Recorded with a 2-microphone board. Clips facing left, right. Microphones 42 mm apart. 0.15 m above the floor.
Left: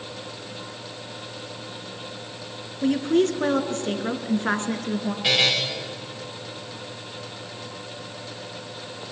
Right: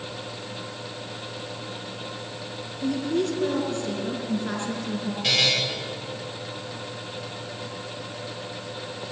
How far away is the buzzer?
About 4.5 m.